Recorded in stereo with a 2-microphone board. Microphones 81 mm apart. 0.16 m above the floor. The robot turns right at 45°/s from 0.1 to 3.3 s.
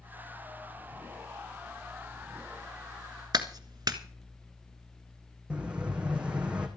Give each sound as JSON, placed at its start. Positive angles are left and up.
{"t": 3.3, "sound": "a clap", "side_deg": -55, "distance_m": 1.4}
{"t": 5.5, "sound": "an explosion", "side_deg": -15, "distance_m": 2.0}